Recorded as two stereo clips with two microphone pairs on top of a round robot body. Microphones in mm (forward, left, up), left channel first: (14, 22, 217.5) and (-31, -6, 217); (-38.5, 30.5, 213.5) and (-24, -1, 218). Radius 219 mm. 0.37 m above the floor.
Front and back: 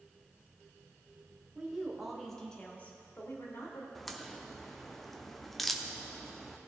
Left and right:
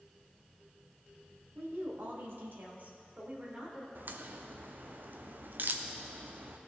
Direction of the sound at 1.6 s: 75° right.